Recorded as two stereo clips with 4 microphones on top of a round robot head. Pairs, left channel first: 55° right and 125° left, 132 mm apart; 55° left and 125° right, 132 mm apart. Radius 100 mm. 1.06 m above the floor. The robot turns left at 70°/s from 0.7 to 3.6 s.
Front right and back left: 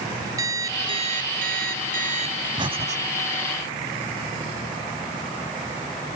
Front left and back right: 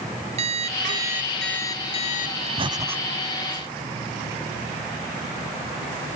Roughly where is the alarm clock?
Behind.